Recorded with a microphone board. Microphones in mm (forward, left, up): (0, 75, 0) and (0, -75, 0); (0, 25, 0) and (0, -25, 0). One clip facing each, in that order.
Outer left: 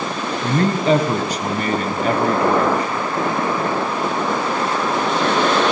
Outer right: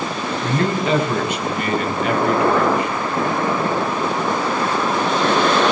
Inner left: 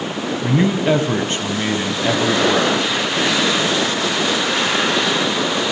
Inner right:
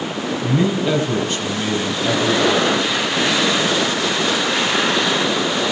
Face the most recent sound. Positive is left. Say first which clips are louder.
# outer left 3 dB, inner left 2 dB
turn(degrees=35)  # may be behind; listen again after turning